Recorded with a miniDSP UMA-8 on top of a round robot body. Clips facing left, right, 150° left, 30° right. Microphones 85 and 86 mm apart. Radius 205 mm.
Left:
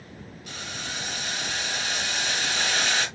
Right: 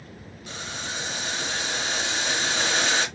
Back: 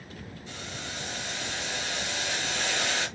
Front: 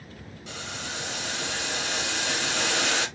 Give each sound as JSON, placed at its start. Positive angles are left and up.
{"t": 0.5, "sound": "boiling", "azimuth_deg": -30, "distance_m": 3.0}